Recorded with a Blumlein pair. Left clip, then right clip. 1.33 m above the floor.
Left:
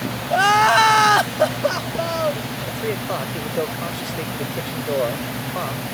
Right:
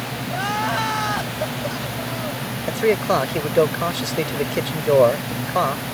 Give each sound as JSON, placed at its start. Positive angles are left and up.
{"t": 0.3, "sound": "crying", "azimuth_deg": 60}
{"t": 2.7, "sound": "a man speaking", "azimuth_deg": -70}